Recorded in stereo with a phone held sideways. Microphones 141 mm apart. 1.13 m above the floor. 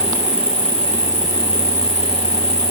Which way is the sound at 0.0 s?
45° right (ahead or behind).